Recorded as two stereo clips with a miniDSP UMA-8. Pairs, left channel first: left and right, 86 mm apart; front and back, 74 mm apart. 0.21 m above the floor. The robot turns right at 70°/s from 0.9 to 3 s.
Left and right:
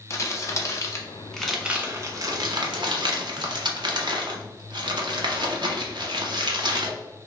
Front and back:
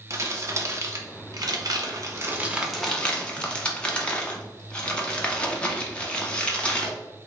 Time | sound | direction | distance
0.1 | crumpling | 140° left | 0.8 m